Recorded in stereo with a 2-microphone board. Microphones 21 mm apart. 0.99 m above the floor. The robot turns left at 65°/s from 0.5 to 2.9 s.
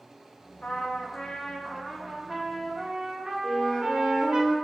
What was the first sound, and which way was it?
A trumpet, 105° left.